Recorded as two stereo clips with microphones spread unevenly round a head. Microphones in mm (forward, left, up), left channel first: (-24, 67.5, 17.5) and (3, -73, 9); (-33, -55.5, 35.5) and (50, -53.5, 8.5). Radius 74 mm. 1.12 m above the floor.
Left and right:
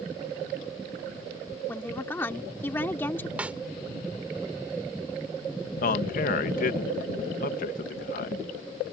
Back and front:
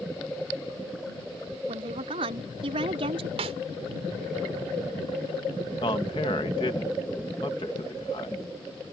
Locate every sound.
1.7 s a woman speaking: 25° left
3.4 s a snare drum: 5° left
5.8 s a man speaking: 125° left